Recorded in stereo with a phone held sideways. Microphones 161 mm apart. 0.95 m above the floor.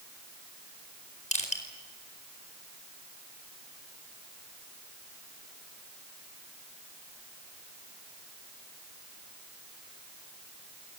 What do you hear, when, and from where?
1.3 s crushing: 50° left (ahead or behind), 4.5 m